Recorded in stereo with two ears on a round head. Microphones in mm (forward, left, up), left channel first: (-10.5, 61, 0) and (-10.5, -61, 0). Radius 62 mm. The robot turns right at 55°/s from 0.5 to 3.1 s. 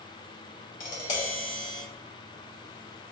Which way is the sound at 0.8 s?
95° left.